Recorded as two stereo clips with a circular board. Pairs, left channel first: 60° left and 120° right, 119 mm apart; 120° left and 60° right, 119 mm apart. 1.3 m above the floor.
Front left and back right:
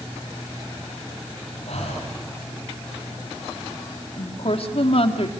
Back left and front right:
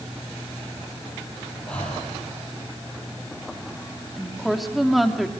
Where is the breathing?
40° left, 8 m.